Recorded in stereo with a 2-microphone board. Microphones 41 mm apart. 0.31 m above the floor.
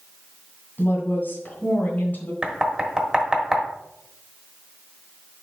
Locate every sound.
0.8 s a woman speaking: 45° left (ahead or behind), 2.0 m
2.4 s knocking: 15° right (ahead or behind), 1.2 m